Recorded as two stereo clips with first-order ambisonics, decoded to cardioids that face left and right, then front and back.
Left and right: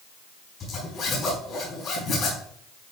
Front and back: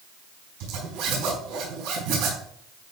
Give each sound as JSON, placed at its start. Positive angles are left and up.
{"t": 0.6, "sound": "a zipper", "azimuth_deg": 150, "distance_m": 4.5}